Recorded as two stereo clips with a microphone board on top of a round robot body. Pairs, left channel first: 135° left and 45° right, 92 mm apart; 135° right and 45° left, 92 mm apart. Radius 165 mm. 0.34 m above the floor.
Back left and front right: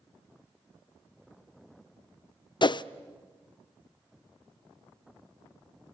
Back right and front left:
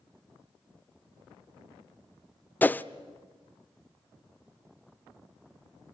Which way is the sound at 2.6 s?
155° left.